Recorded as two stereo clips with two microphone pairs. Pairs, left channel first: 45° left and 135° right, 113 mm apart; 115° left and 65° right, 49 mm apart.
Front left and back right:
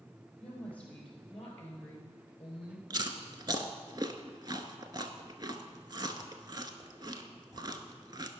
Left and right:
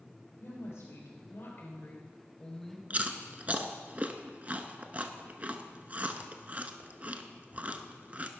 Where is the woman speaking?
125° left, 4 m; by 2.8 s 25° left, 1.5 m.